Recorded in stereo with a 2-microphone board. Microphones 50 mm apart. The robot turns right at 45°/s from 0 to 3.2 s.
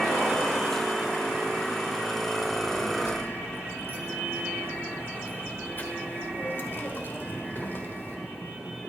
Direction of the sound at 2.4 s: 90° left.